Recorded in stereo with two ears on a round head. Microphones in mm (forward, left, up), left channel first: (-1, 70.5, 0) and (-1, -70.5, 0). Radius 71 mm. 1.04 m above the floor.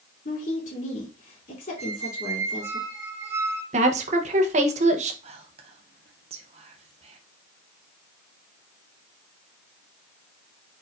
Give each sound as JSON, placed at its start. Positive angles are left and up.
{"t": 0.2, "sound": "a woman speaking", "side_deg": 55, "distance_m": 2.5}
{"t": 1.8, "sound": "a squeak", "side_deg": -20, "distance_m": 1.0}
{"t": 3.7, "sound": "a woman speaking", "side_deg": -45, "distance_m": 0.8}
{"t": 5.2, "sound": "whispering", "side_deg": -40, "distance_m": 0.6}